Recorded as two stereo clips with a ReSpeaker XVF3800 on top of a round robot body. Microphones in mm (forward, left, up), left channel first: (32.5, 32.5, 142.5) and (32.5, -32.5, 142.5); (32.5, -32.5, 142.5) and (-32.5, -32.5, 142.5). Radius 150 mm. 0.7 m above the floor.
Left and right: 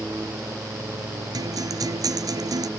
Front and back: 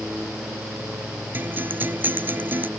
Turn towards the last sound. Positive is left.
turn(degrees=-120)